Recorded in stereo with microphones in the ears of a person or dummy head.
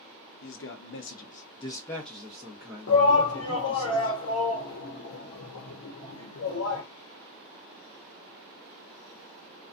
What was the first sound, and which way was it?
A man speaking, 65° left (ahead or behind).